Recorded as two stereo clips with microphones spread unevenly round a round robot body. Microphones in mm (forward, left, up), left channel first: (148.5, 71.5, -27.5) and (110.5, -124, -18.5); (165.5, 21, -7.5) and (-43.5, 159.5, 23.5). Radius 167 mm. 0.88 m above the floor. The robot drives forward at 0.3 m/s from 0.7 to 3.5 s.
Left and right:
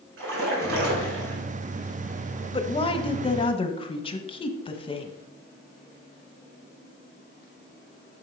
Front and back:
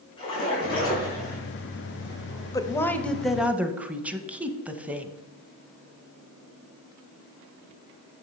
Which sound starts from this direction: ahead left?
A woman speaking, at 2.5 s.